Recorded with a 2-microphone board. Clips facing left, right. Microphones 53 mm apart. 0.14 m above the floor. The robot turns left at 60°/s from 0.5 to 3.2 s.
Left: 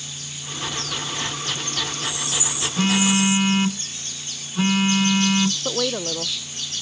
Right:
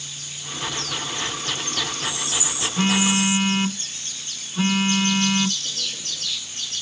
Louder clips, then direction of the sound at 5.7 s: Left 9 dB; 80° left.